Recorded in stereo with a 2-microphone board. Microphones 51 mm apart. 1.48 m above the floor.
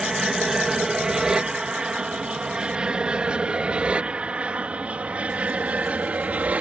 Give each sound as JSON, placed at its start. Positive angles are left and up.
{"t": 0.0, "sound": "an aircraft", "side_deg": -10}